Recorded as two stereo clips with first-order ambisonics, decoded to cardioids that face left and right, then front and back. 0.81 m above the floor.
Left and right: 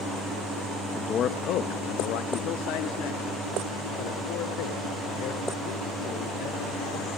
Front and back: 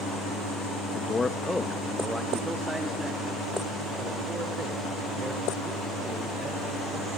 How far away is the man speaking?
About 0.8 m.